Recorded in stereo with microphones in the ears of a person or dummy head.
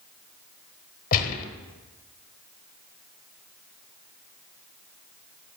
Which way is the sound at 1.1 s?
45° left (ahead or behind).